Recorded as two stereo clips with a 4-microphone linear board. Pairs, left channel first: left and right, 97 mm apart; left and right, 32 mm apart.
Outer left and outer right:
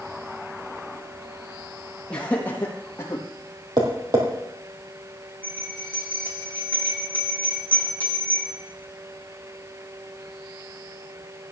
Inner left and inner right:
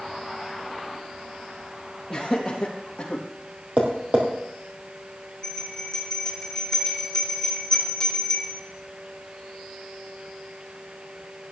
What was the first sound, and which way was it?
Laughter, 10° left (ahead or behind).